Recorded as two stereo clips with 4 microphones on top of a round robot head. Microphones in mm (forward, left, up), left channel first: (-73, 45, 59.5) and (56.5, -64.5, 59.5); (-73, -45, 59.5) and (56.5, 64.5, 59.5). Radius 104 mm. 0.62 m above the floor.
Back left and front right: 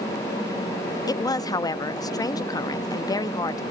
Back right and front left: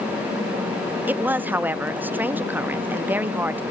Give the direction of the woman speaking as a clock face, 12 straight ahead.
8 o'clock.